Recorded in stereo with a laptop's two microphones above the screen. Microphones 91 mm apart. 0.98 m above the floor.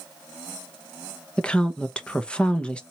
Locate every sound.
1.4 s a woman speaking: 10° left (ahead or behind), 0.9 m